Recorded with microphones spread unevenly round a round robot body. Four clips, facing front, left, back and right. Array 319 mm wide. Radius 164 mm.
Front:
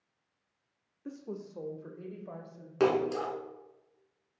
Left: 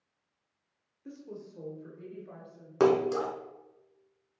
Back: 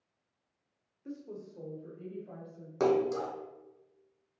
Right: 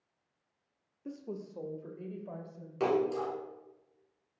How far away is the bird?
No bird in this recording.